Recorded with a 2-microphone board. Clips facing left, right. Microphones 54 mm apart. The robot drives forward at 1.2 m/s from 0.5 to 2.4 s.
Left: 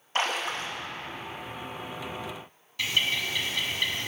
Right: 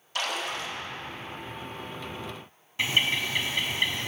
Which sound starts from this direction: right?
A bird, at 2.8 s.